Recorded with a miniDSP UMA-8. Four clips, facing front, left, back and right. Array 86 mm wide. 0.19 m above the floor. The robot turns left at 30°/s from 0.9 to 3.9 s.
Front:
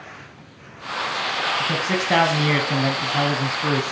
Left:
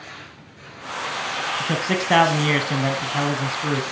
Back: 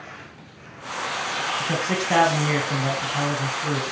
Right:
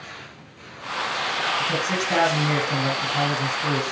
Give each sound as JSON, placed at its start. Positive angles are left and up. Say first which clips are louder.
{"t": 1.6, "sound": "a man speaking", "louder": "left 1 dB, front 2 dB", "azimuth_deg": 90, "distance_m": 1.4}